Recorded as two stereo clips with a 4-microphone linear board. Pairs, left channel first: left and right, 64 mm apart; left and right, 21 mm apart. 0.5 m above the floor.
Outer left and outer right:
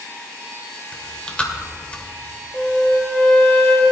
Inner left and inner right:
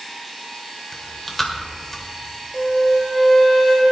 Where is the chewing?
20° left (ahead or behind), 1.7 m.